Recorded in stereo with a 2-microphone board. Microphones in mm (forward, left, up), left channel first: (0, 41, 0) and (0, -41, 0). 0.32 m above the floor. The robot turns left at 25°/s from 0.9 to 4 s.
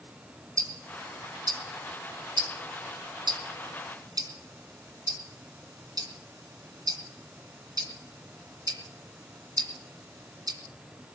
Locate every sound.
0.6 s ticking: 45° right (ahead or behind), 2.5 m; by 10.6 s 55° right (ahead or behind), 2.5 m